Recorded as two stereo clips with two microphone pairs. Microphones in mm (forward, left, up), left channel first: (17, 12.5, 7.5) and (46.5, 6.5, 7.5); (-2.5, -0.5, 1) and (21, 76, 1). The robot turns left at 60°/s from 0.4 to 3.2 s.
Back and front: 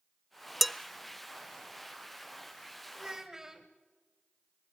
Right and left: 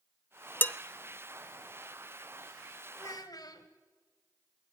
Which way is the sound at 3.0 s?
65° right.